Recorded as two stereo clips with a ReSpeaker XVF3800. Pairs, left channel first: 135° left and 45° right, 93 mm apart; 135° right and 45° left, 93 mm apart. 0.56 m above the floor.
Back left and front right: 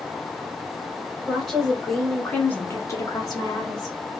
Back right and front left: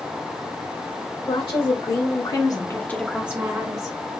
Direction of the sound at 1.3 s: 135° right.